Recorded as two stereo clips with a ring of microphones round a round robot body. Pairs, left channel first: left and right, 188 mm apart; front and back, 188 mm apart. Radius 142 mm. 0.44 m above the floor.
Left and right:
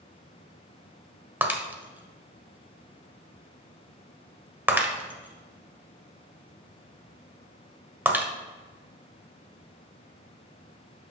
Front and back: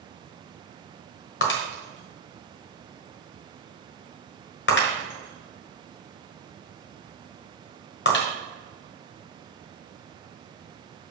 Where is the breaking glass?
10° right, 1.4 m.